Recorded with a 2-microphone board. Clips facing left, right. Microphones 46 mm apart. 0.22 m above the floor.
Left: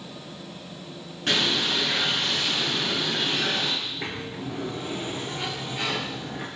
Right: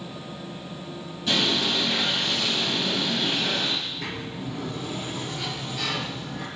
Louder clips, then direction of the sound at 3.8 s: Even; 25° left (ahead or behind).